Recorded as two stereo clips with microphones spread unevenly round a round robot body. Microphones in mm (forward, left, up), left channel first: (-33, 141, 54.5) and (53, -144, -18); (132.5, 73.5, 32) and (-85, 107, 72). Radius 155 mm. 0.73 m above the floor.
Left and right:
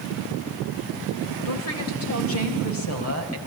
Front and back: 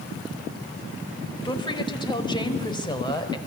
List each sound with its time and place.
1.4 s a woman speaking: 60° left, 4.5 m